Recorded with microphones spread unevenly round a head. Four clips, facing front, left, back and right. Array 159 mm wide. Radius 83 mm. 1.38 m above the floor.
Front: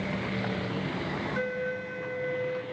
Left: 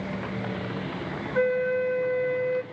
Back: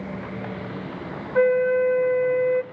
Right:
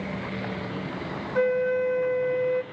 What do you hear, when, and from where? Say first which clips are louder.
1.4 s a flute: right 1 dB, back 18 dB; straight behind, 0.6 m